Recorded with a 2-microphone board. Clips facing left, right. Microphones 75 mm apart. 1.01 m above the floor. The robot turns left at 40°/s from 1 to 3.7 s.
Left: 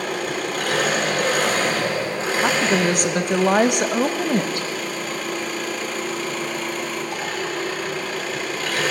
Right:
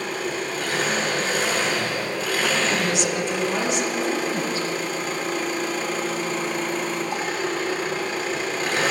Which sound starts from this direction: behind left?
A woman speaking, at 2.4 s.